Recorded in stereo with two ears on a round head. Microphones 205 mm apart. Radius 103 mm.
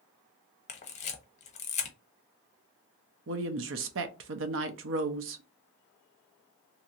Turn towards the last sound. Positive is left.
turn(degrees=-55)  # may be behind; listen again after turning